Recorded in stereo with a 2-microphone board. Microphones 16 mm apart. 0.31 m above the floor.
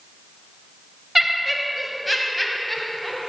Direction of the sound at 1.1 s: 10° right (ahead or behind).